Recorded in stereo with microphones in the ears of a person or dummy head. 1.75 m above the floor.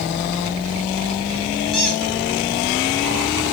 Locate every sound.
1.7 s a squeak: 5° left (ahead or behind), 1.4 m